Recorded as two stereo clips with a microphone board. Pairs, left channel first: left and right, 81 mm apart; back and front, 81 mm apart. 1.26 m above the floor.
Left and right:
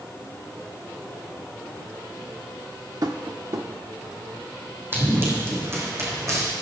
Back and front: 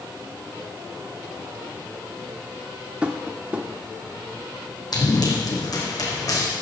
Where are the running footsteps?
155° right, 3.5 m; by 6.5 s 140° right, 4 m.